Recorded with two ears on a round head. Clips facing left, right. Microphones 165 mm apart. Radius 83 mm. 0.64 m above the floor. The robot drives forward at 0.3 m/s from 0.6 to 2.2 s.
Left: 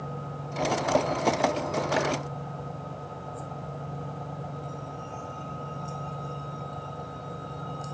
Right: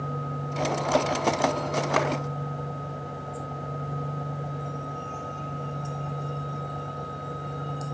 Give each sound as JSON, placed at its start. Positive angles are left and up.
{"t": 2.0, "sound": "a clap", "side_deg": -80, "distance_m": 5.0}